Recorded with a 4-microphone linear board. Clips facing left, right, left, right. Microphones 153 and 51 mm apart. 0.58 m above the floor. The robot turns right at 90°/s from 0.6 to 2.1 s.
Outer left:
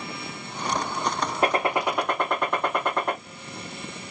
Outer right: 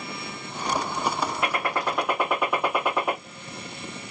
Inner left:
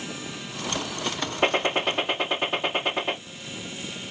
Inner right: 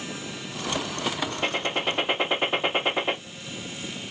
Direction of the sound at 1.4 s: 130° left.